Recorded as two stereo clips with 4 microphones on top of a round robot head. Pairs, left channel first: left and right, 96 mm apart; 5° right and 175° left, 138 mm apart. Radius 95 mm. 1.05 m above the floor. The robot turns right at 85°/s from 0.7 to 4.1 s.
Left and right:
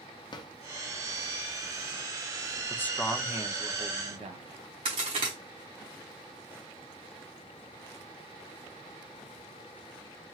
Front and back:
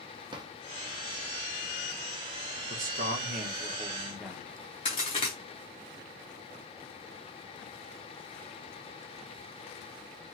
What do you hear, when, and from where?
0.3 s a drawer: 125° left, 0.5 m
2.7 s a man speaking: 150° left, 0.7 m; by 4.6 s 90° right, 0.7 m
4.8 s a crack: 55° right, 0.8 m